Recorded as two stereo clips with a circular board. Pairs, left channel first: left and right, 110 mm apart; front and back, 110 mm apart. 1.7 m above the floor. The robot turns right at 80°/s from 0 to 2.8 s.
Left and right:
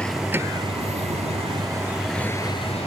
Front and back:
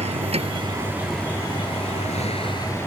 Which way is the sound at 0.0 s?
170° left.